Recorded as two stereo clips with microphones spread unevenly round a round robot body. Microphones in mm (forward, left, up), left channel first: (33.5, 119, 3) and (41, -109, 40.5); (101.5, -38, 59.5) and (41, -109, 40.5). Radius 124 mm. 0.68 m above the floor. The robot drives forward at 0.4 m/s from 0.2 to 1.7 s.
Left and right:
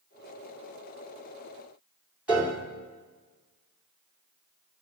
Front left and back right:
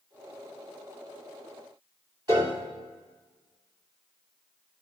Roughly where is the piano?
Behind.